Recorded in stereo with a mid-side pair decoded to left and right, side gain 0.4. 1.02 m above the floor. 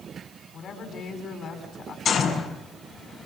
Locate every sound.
0.5 s a woman speaking: 60° left, 8.5 m
2.0 s a gunshot: 65° left, 6.5 m